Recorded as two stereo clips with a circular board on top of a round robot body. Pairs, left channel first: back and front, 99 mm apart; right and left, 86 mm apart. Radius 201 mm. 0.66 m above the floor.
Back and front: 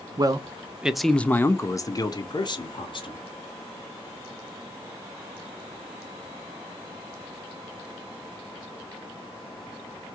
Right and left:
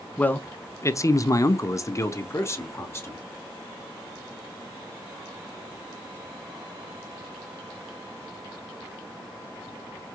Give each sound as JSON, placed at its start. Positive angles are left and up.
{"t": 0.2, "sound": "a man speaking", "azimuth_deg": -25, "distance_m": 0.8}